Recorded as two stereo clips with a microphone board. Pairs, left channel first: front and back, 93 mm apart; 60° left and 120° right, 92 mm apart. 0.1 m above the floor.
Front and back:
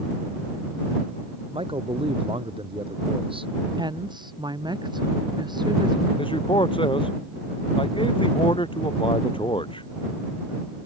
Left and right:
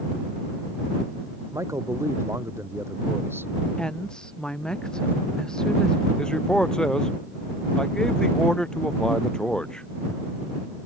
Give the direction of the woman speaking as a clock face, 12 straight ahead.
7 o'clock.